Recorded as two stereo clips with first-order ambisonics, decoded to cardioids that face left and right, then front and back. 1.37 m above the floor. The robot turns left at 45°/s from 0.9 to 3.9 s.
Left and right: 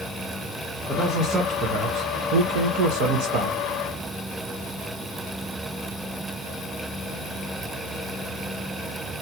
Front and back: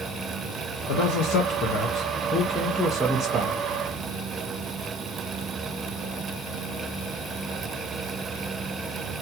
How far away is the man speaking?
About 0.7 m.